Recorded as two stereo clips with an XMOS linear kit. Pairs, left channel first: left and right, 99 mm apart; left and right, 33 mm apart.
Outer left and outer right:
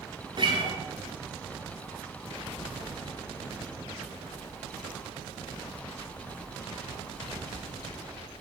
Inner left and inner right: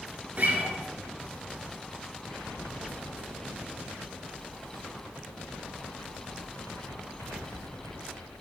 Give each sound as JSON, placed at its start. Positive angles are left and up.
{"t": 0.4, "sound": "a guitar", "side_deg": -50, "distance_m": 1.2}